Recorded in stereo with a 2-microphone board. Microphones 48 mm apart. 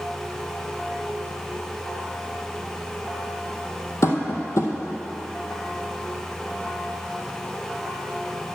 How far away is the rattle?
No rattle in this recording.